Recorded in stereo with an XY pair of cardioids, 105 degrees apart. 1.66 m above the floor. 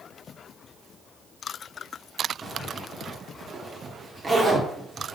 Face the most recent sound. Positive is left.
turn(degrees=-25)